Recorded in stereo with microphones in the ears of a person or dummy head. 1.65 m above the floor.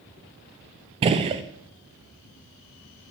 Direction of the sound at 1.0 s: 30° right (ahead or behind).